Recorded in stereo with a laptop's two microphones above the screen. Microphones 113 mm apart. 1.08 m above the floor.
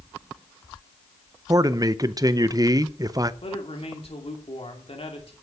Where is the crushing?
I don't hear crushing.